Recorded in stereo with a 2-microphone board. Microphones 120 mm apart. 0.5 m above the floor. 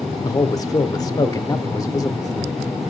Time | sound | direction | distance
0.2 | a man speaking | 30° left (ahead or behind) | 1.0 m